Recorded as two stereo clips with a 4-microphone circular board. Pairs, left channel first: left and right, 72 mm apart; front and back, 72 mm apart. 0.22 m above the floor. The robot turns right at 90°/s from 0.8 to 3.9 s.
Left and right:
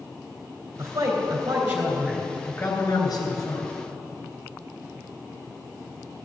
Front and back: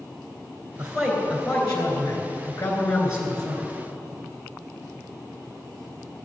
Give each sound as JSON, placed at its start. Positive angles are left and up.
{"t": 0.8, "sound": "a man speaking", "azimuth_deg": -110, "distance_m": 3.0}